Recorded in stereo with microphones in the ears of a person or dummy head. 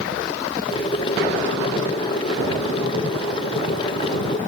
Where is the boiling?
30° left (ahead or behind), 1.3 m.